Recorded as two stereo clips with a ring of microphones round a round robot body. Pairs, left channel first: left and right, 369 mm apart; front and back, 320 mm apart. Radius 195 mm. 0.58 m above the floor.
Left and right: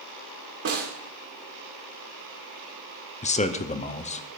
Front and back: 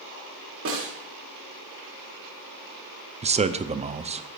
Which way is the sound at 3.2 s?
135° left.